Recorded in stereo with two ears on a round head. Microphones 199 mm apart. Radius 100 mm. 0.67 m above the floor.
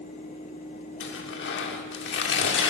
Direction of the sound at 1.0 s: 55° left (ahead or behind).